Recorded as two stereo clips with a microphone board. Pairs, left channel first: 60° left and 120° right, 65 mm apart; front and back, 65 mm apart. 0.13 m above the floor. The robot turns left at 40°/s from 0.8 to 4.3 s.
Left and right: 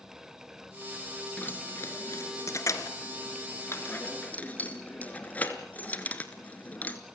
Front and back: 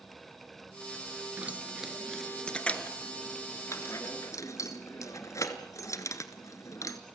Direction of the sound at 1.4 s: 120° left.